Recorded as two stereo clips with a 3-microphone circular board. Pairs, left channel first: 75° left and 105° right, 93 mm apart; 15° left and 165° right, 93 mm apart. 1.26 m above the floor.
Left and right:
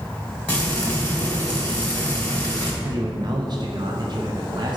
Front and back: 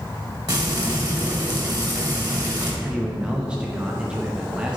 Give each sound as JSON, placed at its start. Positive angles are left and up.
{"t": 0.5, "sound": "frying", "azimuth_deg": 150, "distance_m": 2.5}
{"t": 2.8, "sound": "a man speaking", "azimuth_deg": -90, "distance_m": 0.9}